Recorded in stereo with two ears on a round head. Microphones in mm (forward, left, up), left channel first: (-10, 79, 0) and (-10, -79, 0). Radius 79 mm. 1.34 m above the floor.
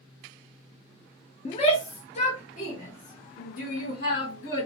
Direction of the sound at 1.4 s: 30° left (ahead or behind).